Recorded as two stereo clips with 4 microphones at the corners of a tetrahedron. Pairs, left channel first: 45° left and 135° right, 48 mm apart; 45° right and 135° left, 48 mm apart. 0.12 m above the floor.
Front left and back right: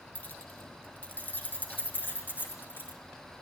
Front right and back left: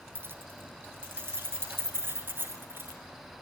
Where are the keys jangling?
100° left, 3.5 m; by 3.0 s 90° left, 7 m.